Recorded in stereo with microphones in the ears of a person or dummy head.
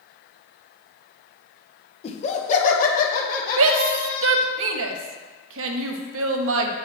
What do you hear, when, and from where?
2.0 s laughter: 30° left (ahead or behind), 0.9 m; by 4.5 s 55° left (ahead or behind), 2.5 m
3.6 s a shout: 70° right (ahead or behind), 0.8 m